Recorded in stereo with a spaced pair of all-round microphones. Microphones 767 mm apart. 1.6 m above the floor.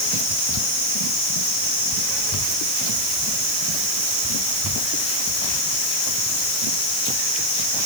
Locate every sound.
Only background noise.